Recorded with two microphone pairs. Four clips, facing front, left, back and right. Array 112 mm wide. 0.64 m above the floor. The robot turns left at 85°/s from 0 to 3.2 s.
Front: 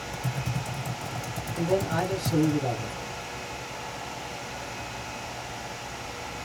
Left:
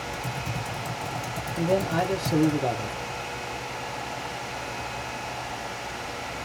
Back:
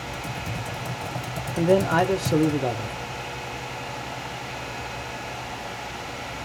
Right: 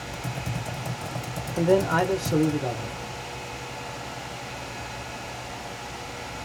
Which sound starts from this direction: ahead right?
Typing on a keyboard, at 0.1 s.